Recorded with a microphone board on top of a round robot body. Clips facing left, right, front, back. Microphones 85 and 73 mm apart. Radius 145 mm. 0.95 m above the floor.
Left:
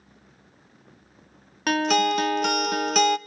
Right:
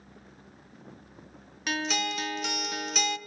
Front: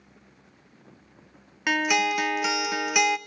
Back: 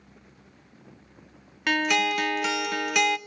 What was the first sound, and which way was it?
A guitar, 80° left.